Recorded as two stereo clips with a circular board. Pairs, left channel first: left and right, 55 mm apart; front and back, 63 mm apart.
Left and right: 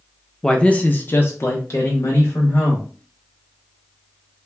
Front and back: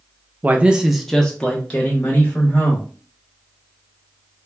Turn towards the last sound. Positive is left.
turn(degrees=55)